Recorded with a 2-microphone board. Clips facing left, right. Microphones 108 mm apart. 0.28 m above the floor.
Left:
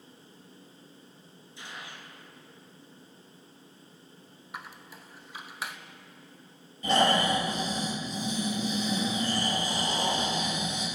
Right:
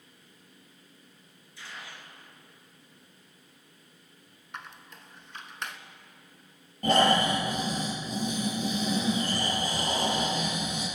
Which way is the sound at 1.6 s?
20° left (ahead or behind).